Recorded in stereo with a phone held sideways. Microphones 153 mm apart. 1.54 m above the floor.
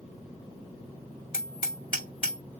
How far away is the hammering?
About 3 m.